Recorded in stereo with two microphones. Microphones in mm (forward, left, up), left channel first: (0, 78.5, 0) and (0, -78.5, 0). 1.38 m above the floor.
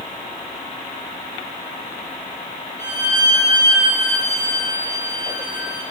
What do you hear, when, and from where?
2.8 s a violin: 15° left (ahead or behind), 3 m